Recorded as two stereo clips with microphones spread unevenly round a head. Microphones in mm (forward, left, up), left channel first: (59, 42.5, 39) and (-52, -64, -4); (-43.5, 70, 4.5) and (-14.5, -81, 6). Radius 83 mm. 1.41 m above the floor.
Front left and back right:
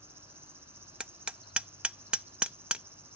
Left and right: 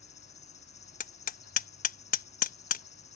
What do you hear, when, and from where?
0.0 s an insect: 145° left
1.0 s hammering: 135° left